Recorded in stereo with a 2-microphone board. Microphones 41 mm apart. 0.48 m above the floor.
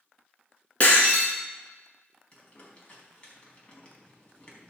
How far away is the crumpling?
About 4 m.